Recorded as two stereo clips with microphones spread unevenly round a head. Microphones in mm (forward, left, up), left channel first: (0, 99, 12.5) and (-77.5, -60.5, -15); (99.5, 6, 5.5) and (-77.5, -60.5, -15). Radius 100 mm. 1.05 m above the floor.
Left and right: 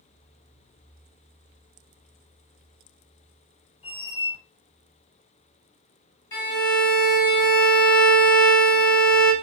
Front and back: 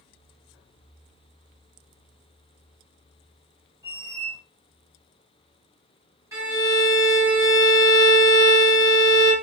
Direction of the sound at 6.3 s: 125° left.